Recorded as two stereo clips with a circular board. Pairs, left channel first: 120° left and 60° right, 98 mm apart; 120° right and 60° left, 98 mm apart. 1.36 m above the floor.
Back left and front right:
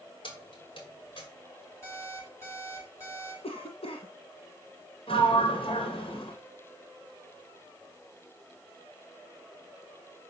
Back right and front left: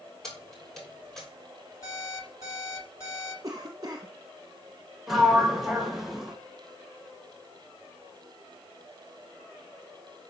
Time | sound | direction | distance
0.2 | keys jangling | 155° left | 3 m
1.8 | an alarm clock | 175° right | 5 m
3.4 | a cough | 110° left | 1.1 m
5.1 | a sliding door | 145° left | 2 m